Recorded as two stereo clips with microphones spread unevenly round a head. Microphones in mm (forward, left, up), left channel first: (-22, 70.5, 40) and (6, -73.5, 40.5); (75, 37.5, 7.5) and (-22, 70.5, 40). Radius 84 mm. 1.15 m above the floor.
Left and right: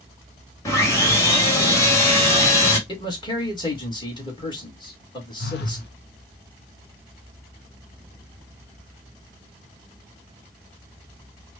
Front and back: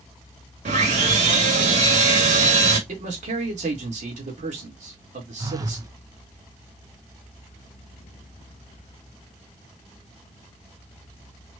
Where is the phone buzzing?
105° left, 0.8 m.